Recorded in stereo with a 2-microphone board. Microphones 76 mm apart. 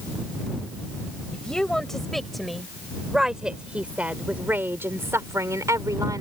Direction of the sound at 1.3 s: 10° left (ahead or behind).